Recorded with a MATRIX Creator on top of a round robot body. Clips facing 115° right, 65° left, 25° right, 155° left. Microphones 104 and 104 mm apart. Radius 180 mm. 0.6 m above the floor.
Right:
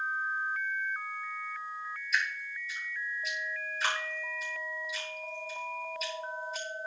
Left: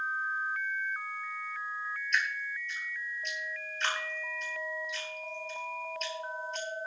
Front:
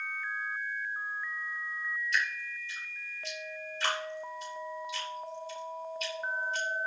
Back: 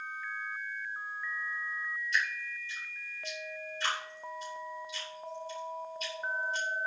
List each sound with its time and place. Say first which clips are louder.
2.1 s dripping: even, back 1 dB; 25° right, 9 m